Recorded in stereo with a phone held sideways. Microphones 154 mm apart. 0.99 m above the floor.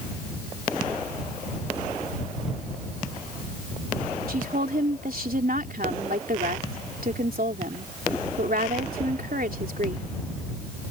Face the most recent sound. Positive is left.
turn(degrees=-70)  # may be behind; listen again after turning